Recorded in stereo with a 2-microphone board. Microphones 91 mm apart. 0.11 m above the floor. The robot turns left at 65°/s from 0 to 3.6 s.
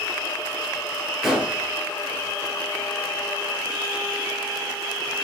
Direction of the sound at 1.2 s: Centre (ahead or behind).